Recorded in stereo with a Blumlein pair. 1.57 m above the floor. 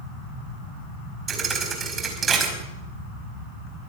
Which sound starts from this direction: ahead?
A thud, at 1.3 s.